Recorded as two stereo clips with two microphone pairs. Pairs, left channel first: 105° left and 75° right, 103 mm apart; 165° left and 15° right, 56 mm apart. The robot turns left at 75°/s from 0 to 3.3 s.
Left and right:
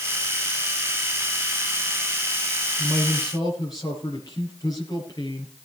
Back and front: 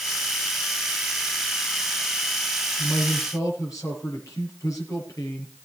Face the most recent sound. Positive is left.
turn(degrees=155)